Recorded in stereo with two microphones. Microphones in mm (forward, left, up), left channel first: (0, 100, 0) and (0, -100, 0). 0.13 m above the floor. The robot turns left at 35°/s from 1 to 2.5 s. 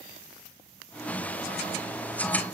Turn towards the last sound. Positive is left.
No sound to turn to.